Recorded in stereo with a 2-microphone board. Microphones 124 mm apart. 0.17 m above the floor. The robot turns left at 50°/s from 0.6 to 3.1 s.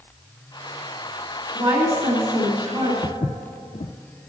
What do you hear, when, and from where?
1.6 s a woman speaking: 60° right, 3 m; by 2.9 s 130° right, 3 m
3.0 s footsteps: 65° left (ahead or behind), 0.6 m; by 3.9 s 70° left (ahead or behind), 0.6 m